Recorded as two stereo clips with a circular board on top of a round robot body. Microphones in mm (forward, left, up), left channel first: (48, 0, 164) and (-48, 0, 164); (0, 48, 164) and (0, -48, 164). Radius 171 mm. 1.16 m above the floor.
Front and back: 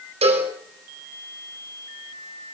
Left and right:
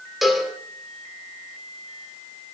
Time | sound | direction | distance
0.2 | a cowbell | straight behind | 5 m